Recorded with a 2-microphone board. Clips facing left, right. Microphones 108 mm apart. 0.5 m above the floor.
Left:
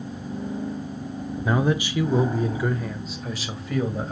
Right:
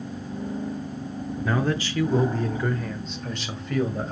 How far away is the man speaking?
About 0.9 m.